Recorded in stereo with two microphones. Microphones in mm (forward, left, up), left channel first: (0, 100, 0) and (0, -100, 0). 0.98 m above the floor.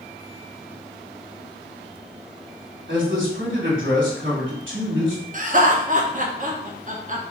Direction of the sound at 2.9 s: 75° right (ahead or behind).